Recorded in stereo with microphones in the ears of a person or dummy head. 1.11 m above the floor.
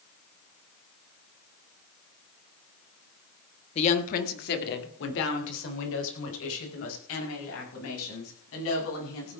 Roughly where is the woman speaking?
Left.